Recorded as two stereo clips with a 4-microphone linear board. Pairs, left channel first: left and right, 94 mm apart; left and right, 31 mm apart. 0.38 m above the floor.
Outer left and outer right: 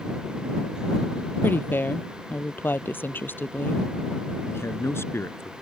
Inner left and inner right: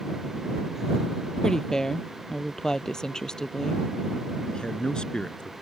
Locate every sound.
1.4 s a woman speaking: 20° left (ahead or behind)
4.4 s a man speaking: 25° left (ahead or behind)